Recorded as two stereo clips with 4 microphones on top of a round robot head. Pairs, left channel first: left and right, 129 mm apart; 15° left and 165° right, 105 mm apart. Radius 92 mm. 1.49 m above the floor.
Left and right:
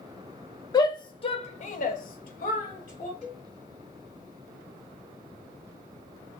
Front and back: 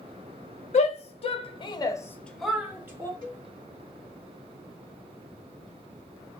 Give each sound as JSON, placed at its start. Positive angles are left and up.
{"t": 0.7, "sound": "a shout", "azimuth_deg": 30, "distance_m": 1.0}
{"t": 3.2, "sound": "a cowbell", "azimuth_deg": 60, "distance_m": 2.5}